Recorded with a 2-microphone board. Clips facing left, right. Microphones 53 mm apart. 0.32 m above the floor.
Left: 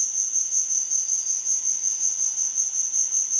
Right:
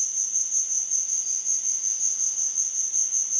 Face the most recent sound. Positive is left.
turn(degrees=65)  # may be behind; listen again after turning